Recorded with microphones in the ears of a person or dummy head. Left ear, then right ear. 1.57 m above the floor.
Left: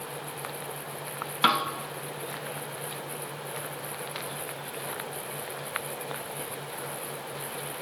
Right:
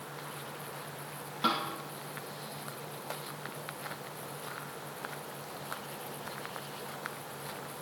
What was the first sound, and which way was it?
A snare drum, 45° left (ahead or behind).